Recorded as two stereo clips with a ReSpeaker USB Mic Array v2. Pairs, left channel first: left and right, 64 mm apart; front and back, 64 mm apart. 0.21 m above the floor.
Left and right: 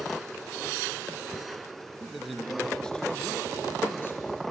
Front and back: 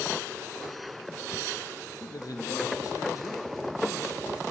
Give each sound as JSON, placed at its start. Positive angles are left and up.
{"t": 2.0, "sound": "a man speaking", "azimuth_deg": -10, "distance_m": 3.5}